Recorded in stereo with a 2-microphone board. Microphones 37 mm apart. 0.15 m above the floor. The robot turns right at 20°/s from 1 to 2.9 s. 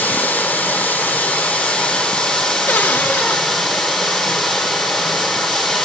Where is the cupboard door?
55° left (ahead or behind), 0.6 m.